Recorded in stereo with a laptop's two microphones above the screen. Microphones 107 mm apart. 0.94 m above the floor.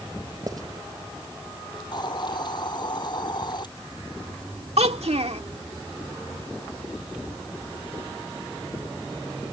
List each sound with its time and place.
0.5 s writing: 35° right (ahead or behind)
1.9 s a hiss: 45° left (ahead or behind)
4.8 s a child speaking: 85° right